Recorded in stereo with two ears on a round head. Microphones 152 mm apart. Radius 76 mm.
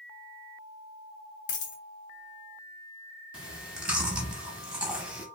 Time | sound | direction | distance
1.5 | a dropped coin | 45° left (ahead or behind) | 0.9 m
3.3 | chewing | 5° right (ahead or behind) | 0.7 m